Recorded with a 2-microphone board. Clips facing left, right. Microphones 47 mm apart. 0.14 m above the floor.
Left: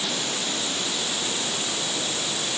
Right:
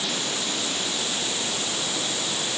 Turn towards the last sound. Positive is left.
No sound to turn to.